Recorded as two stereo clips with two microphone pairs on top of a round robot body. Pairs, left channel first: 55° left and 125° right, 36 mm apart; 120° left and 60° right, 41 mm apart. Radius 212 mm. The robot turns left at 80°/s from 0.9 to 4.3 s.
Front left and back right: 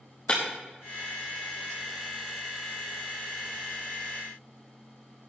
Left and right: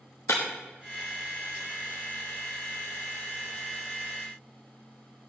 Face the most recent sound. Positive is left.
turn(degrees=-160)